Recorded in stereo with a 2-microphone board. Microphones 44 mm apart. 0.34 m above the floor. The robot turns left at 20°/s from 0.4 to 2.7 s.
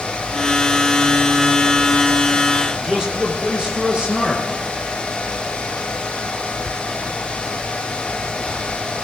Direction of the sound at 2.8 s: 20° right (ahead or behind).